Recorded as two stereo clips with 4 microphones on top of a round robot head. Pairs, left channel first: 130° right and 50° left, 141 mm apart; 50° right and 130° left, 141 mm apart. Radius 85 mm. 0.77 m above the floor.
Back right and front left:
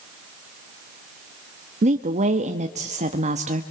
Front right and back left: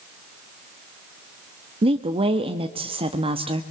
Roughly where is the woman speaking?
Left.